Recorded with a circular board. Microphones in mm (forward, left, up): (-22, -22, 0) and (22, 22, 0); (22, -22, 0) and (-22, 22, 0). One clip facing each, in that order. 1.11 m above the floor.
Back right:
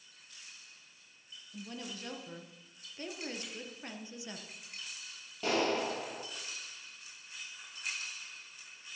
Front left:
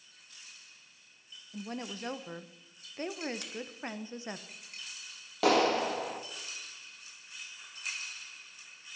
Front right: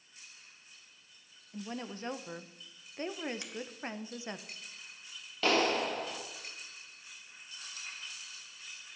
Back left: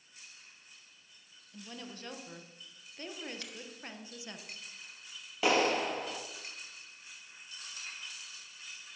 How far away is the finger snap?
About 2 m.